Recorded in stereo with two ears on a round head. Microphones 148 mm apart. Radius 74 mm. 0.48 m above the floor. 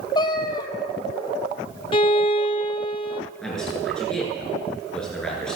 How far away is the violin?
About 0.8 m.